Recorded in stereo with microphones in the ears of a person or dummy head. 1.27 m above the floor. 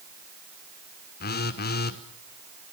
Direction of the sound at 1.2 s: 50° left (ahead or behind).